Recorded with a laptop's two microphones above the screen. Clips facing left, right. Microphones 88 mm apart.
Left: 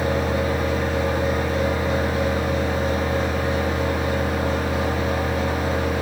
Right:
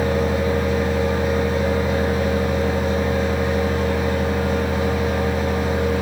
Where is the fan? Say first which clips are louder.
Right 2 dB; 10° left (ahead or behind), 1.5 m.